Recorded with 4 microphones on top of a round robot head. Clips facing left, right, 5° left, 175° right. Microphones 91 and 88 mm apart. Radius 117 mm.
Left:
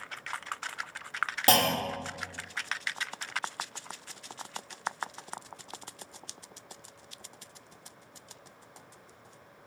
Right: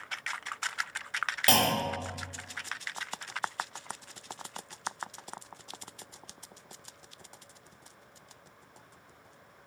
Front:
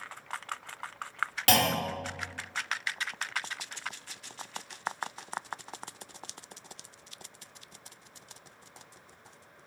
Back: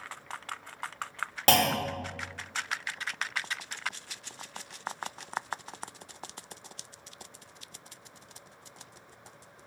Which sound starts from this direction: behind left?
A clunk, at 1.5 s.